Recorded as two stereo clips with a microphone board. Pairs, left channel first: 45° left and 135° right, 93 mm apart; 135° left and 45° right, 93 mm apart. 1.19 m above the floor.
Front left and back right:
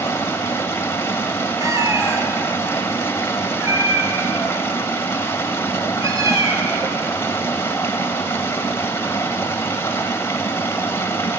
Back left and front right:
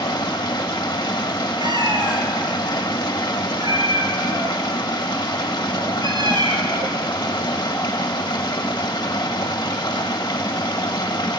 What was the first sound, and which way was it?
Running water, 105° left.